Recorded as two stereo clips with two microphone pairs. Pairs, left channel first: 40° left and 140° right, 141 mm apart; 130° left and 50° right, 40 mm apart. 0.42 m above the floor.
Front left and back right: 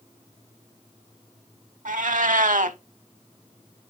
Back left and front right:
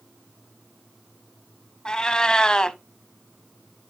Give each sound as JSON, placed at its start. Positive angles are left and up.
{"t": 1.9, "sound": "a cat meowing", "azimuth_deg": -160, "distance_m": 0.7}